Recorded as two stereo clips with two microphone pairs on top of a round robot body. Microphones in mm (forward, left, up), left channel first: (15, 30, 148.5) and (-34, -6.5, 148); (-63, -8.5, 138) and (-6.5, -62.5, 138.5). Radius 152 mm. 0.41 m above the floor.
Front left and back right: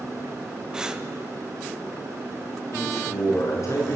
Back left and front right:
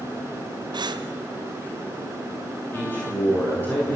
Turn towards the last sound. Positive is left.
turn(degrees=70)